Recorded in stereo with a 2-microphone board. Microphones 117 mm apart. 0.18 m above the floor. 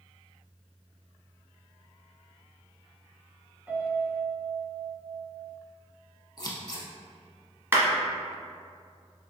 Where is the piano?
20° right (ahead or behind), 0.6 m.